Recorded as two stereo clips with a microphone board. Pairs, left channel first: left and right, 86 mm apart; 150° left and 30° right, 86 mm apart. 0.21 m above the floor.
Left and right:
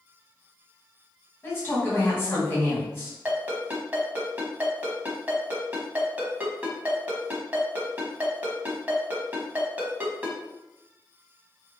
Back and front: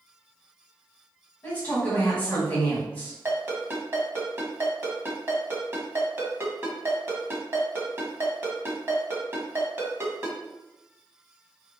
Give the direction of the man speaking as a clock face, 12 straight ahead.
9 o'clock.